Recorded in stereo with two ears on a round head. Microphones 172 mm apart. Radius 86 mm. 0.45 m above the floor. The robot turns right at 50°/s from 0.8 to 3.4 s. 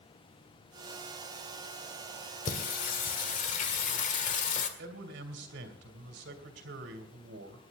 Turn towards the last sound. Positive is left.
turn(degrees=-65)  # may be behind; listen again after turning